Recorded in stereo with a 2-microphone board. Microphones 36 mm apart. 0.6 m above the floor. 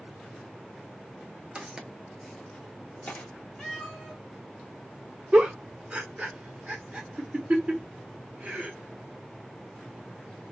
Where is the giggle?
35° right (ahead or behind), 0.9 m.